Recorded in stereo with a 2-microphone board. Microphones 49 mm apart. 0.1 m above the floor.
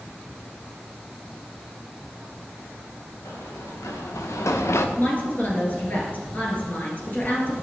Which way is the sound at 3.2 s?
85° left.